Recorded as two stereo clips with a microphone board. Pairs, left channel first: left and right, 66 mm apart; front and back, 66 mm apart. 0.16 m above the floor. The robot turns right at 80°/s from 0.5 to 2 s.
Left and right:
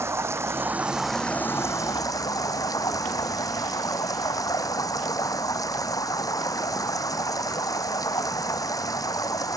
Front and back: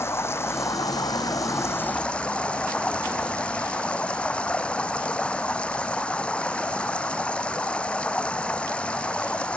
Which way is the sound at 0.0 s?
45° right.